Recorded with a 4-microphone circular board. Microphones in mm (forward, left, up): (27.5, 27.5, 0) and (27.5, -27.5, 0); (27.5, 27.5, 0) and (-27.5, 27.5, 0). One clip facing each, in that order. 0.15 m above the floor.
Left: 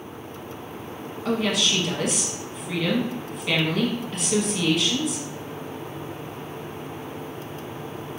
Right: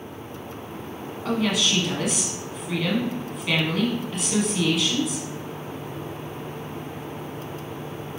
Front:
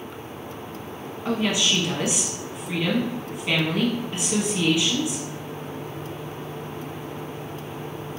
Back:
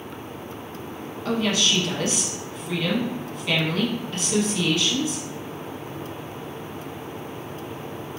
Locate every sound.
1.2 s a woman speaking: straight ahead, 1.1 m